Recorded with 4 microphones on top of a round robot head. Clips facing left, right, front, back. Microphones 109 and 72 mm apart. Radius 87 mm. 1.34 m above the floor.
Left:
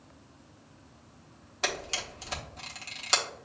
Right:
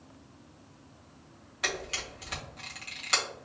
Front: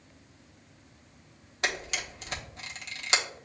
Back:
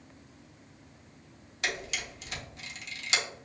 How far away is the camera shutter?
About 1.1 m.